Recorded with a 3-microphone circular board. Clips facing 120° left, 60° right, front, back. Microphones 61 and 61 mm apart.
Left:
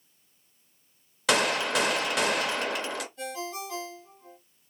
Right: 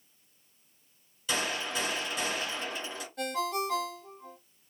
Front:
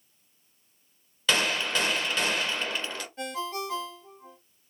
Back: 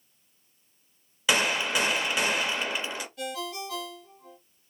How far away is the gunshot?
About 0.5 m.